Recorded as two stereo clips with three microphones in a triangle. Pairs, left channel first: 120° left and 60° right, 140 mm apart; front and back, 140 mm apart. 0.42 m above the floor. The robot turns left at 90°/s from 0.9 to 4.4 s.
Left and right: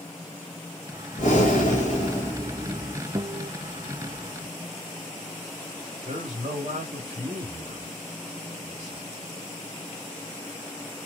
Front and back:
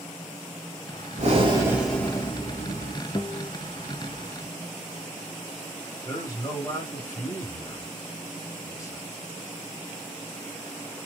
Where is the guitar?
25° right, 0.6 m; by 3.5 s 60° right, 0.6 m.